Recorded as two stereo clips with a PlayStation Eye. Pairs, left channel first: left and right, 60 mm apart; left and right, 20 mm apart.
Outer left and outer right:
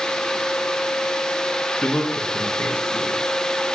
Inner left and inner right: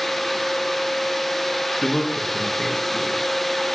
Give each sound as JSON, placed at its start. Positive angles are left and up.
{"t": 1.8, "sound": "a man speaking", "side_deg": 20, "distance_m": 1.4}